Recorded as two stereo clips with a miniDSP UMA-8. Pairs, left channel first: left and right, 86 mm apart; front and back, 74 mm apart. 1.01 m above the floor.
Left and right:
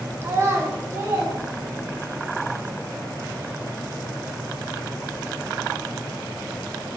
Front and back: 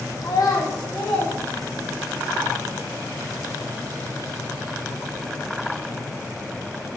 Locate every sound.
0.2 s a child speaking: 35° right, 0.5 m